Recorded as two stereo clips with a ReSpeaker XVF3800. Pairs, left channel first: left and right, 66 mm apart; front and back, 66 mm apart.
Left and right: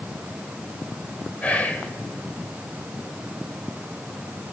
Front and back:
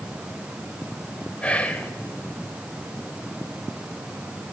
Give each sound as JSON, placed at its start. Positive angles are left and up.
{"t": 1.4, "sound": "whispering", "azimuth_deg": 45, "distance_m": 1.0}